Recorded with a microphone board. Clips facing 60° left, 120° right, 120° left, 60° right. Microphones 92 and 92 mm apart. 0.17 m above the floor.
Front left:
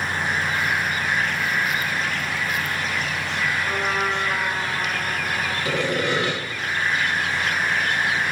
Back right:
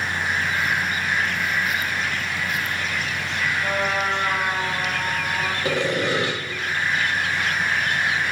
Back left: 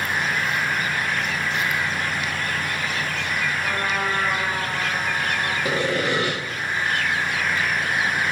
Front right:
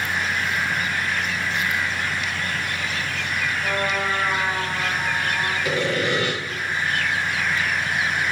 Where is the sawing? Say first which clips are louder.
Back right 1 dB, back left 1 dB; 175° left, 5.5 m.